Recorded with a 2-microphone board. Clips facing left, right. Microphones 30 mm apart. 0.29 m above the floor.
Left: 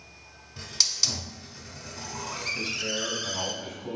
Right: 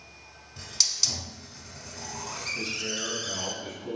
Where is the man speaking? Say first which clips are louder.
Left 1 dB; 25° left (ahead or behind), 1.6 m.